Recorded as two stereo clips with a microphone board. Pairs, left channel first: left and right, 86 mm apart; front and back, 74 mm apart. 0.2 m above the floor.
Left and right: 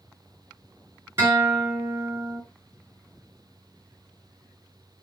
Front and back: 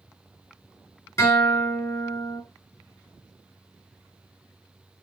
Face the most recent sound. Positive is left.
turn(degrees=-35)